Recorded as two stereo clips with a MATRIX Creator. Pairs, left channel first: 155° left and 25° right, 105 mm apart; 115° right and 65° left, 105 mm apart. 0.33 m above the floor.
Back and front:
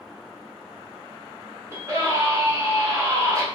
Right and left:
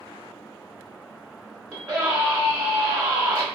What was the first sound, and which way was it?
A scream, 20° left.